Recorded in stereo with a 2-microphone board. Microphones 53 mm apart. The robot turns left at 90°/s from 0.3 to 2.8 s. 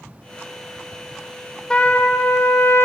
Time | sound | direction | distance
1.7 | a trumpet | 165° left | 0.7 m